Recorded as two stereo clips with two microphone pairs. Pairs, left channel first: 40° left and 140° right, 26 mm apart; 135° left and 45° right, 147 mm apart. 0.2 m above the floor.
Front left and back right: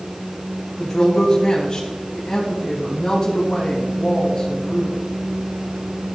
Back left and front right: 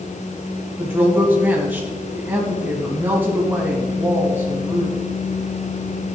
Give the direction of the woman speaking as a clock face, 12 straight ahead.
11 o'clock.